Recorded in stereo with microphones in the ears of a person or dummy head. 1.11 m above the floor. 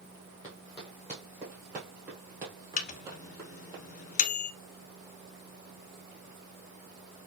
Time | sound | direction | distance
0.4 | running footsteps | 20° left (ahead or behind) | 1.2 m
2.8 | a microwave | 40° left (ahead or behind) | 0.6 m